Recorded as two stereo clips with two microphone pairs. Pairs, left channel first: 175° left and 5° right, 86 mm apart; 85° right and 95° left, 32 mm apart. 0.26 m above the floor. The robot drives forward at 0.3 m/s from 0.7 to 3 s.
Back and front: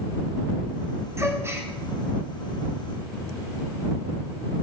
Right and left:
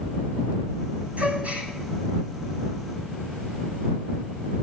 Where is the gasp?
50° left, 2.5 m.